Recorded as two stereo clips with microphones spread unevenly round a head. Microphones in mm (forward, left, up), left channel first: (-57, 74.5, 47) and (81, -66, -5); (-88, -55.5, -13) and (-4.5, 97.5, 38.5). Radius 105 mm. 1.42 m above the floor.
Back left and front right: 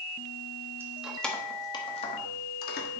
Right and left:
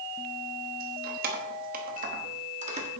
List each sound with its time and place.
0.8 s keys jangling: 40° left, 1.3 m; by 2.9 s 105° left, 1.8 m